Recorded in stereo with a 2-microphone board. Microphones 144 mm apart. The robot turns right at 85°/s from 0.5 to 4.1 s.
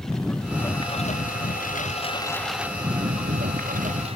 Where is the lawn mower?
5° left (ahead or behind); by 4.2 s 45° right (ahead or behind).